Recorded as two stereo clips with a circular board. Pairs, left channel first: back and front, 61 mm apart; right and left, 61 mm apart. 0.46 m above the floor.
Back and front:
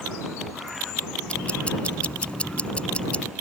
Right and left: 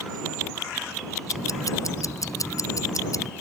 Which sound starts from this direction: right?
Ticking, at 1.3 s.